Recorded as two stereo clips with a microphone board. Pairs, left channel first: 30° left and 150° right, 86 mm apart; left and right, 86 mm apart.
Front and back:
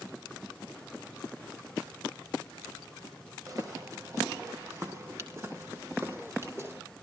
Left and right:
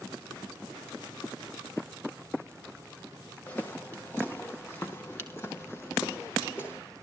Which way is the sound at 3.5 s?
160° left.